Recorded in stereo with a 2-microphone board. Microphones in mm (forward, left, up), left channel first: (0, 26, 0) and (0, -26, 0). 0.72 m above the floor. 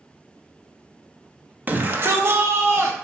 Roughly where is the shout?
Right.